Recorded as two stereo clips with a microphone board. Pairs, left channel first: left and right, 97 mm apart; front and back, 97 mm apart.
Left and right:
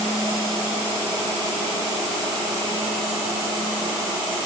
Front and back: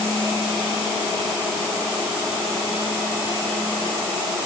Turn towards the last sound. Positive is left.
No sound to turn to.